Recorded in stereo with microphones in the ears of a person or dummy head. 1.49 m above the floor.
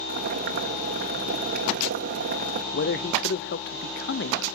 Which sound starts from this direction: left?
A man speaking, at 2.7 s.